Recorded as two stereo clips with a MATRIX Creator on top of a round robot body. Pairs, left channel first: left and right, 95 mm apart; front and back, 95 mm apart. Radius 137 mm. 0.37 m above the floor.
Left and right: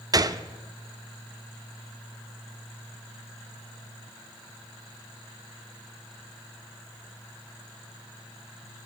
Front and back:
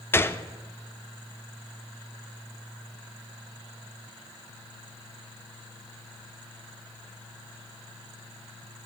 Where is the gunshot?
55° right, 0.6 m.